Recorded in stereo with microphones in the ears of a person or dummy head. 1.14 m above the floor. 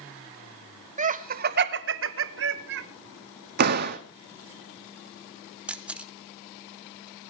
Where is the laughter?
35° right (ahead or behind), 1.0 m; by 2.8 s 55° right (ahead or behind), 1.1 m.